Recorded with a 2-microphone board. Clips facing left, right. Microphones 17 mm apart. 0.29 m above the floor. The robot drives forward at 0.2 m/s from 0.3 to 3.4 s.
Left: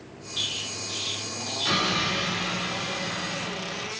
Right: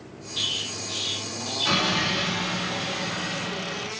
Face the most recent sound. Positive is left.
turn(degrees=-10)  # may be behind; listen again after turning